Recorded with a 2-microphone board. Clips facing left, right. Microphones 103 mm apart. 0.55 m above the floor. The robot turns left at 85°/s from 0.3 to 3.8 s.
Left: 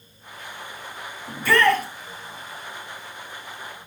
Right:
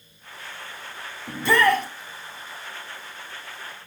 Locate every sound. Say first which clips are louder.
1.3 s a shout: even; 140° right, 4.5 m; by 1.9 s 170° left, 4.5 m